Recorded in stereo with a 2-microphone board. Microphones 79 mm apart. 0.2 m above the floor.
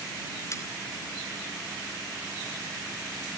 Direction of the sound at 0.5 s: 40° left (ahead or behind).